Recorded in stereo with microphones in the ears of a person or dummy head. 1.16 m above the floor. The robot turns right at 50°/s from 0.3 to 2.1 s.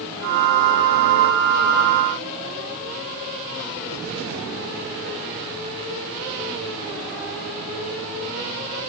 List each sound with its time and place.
Only background noise.